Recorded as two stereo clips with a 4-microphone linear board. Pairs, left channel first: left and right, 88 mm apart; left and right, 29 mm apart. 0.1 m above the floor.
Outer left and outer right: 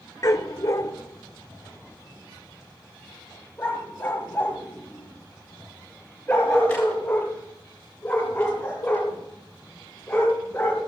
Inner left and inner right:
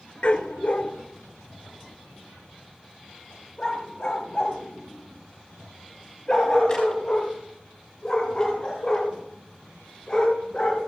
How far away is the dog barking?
About 0.7 m.